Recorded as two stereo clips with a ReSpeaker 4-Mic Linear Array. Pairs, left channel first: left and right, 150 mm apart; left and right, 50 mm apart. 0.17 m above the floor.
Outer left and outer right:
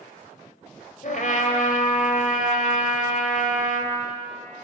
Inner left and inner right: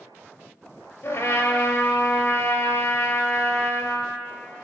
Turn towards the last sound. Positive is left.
turn(degrees=65)  # may be behind; listen again after turning